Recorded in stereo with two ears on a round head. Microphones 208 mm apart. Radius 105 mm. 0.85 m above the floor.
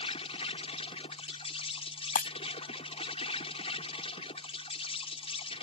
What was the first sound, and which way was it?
An insect, 25° left (ahead or behind).